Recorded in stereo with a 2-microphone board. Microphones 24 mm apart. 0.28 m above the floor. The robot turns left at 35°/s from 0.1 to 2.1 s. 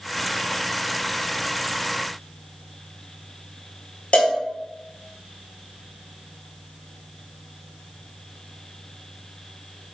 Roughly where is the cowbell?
Left.